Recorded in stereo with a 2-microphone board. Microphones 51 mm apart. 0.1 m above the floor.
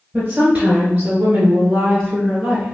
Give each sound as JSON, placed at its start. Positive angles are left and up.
{"t": 0.1, "sound": "a woman speaking", "side_deg": -25, "distance_m": 1.7}